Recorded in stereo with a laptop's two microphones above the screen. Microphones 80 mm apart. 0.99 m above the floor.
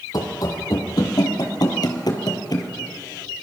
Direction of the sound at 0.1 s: 50° left (ahead or behind).